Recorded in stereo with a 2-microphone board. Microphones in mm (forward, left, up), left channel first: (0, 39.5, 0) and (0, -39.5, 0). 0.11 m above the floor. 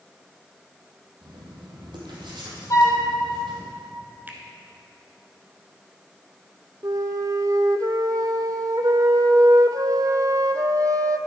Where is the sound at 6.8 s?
50° right (ahead or behind), 0.6 m.